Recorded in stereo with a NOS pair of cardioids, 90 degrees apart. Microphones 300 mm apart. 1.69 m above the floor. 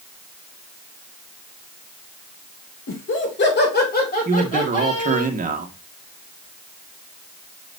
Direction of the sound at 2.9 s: 45° left.